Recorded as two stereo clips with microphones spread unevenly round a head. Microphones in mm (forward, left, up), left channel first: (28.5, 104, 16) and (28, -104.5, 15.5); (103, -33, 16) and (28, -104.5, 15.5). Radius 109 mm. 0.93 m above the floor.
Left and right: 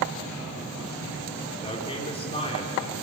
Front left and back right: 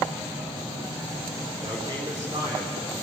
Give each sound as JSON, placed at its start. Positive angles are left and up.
{"t": 1.6, "sound": "a man speaking", "azimuth_deg": 155, "distance_m": 3.0}